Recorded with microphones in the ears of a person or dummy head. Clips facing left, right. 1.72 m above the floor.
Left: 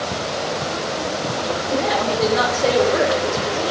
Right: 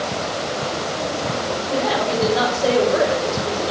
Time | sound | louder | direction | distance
1.7 | a woman speaking | even | 15° left (ahead or behind) | 3.5 m